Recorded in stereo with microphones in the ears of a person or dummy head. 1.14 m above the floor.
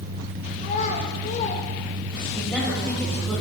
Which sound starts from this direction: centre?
A woman speaking, at 2.3 s.